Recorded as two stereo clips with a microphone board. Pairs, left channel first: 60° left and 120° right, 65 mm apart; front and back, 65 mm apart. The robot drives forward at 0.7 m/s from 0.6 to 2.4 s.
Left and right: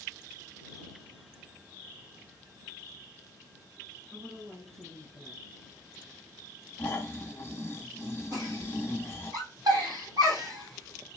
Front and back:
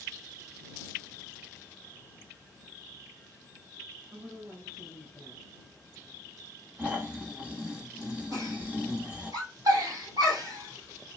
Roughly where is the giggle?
Behind right.